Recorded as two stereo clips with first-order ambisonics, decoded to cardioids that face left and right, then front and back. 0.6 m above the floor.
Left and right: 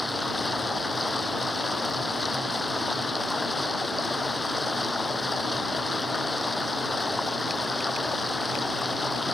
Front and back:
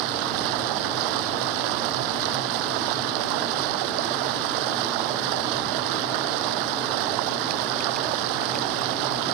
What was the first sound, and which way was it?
Running water, 170° left.